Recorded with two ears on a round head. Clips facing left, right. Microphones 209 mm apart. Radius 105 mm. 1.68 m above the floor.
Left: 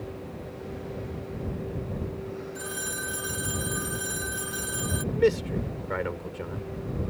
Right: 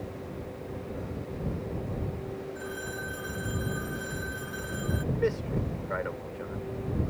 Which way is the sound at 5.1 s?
50° left (ahead or behind).